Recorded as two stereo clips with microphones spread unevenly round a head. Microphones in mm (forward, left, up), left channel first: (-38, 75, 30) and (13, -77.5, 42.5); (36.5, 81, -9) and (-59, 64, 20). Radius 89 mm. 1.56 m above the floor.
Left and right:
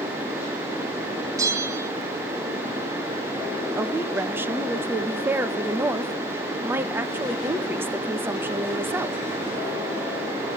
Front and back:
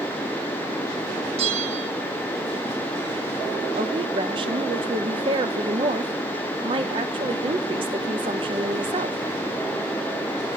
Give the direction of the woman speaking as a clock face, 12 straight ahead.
5 o'clock.